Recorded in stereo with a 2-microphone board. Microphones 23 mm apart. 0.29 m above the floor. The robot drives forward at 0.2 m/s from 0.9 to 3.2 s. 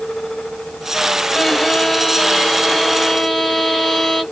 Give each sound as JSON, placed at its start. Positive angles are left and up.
{"t": 1.3, "sound": "a violin", "side_deg": 5, "distance_m": 0.8}